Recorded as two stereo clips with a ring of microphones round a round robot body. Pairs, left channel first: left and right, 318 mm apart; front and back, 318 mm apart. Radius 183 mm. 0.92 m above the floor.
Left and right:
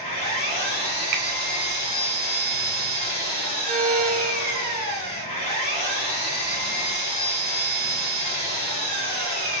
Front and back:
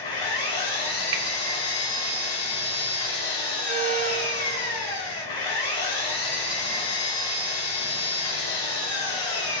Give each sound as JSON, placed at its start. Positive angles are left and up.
{"t": 0.0, "sound": "an engine running", "azimuth_deg": 20, "distance_m": 1.4}
{"t": 1.1, "sound": "a finger snap", "azimuth_deg": -125, "distance_m": 0.8}
{"t": 3.7, "sound": "a violin", "azimuth_deg": -130, "distance_m": 0.6}